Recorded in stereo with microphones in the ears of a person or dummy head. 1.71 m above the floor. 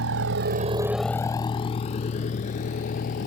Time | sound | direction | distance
0.0 | a vehicle | 75° right (ahead or behind) | ?